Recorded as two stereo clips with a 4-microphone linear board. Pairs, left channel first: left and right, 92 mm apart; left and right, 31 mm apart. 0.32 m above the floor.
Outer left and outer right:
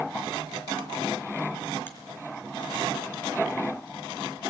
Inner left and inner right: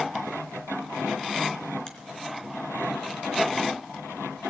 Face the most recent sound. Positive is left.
turn(degrees=25)  # may be behind; listen again after turning